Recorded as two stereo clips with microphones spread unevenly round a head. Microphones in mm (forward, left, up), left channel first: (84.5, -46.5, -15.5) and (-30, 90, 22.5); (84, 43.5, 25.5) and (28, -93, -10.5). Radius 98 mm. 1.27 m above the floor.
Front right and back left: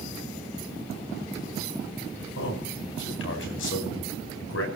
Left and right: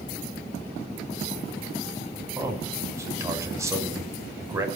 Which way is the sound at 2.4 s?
45° right.